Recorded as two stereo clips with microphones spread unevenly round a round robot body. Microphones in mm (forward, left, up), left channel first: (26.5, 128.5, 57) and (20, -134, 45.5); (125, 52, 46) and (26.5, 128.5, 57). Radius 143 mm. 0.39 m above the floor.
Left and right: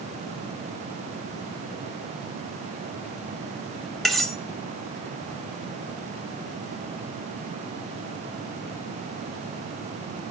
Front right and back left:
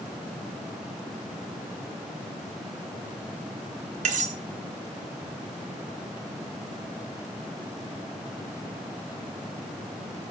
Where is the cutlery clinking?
Straight behind, 1.0 m.